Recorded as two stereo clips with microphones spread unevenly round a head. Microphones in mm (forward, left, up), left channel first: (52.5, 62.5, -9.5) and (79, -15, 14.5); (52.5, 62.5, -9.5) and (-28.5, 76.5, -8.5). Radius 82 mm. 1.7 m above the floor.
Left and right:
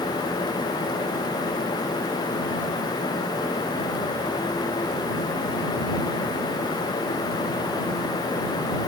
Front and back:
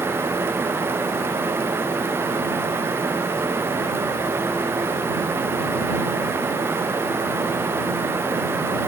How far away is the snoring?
I don't hear snoring.